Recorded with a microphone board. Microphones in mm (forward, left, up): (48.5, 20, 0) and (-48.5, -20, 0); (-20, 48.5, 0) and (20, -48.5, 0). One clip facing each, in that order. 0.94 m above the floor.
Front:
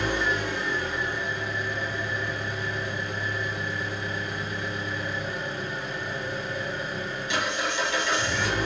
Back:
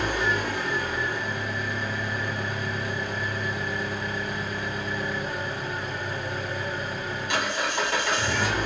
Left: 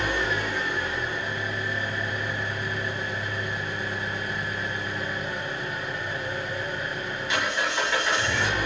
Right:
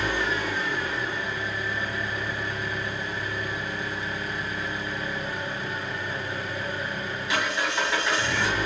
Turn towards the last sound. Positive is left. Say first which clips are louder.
# back 1 dB, even
turn(degrees=-155)